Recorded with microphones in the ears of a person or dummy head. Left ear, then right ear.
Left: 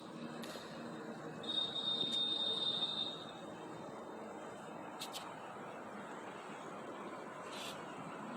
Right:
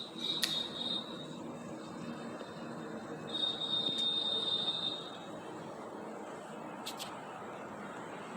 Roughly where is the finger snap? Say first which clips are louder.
Right 15 dB; right.